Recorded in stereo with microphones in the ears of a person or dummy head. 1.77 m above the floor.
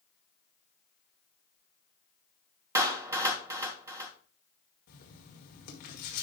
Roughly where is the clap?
Centre.